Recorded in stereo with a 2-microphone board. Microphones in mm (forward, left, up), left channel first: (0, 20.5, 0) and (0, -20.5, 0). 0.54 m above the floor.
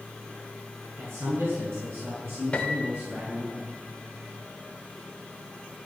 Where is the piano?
25° left (ahead or behind), 1.9 m.